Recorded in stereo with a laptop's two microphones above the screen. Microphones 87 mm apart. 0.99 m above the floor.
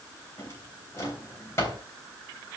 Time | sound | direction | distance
0.4 | a drawer | 35° left (ahead or behind) | 3 m